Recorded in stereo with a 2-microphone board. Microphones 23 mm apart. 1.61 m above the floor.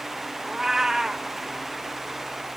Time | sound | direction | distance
0.5 | a cat meowing | 20° right (ahead or behind) | 0.8 m